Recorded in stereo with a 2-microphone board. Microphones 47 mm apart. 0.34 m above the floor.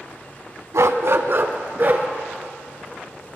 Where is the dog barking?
75° right (ahead or behind), 0.6 m; by 2.1 s 40° right (ahead or behind), 1.5 m.